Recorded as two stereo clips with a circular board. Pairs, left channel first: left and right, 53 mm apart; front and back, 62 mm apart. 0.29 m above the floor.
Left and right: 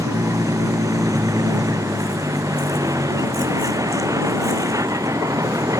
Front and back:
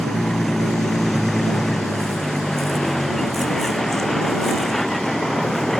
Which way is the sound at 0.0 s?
85° right.